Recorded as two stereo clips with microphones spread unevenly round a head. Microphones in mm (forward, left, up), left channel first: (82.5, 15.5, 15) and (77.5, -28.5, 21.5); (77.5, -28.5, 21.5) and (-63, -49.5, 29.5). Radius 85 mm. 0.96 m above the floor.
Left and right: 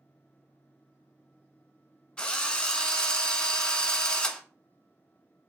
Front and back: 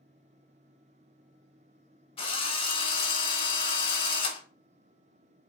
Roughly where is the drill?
Ahead left.